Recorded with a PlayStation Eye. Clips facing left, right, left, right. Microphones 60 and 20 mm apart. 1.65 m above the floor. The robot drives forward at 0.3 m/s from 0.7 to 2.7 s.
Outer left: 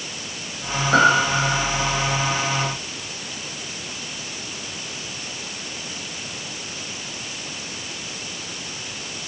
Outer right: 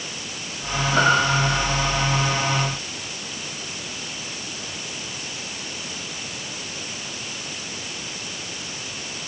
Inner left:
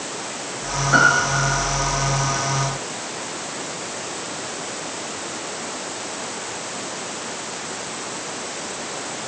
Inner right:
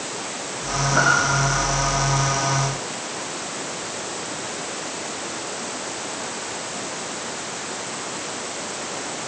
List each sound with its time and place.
0.9 s a piano: 65° left (ahead or behind), 9.5 m; by 1.6 s 70° left (ahead or behind), 9.5 m